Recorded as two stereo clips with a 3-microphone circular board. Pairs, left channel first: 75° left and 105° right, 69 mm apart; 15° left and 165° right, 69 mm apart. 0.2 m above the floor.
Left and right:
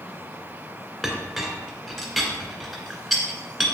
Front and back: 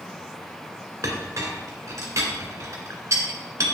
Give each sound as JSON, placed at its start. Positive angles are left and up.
{"t": 1.0, "sound": "a clink", "azimuth_deg": 160, "distance_m": 1.6}